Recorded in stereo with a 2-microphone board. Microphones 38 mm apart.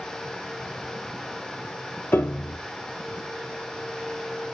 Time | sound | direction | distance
2.1 | a piano | 75° left (ahead or behind) | 0.9 m